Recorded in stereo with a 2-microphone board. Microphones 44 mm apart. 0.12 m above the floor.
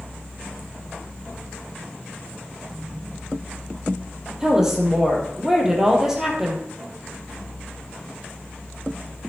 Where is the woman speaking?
15° right (ahead or behind), 3 m.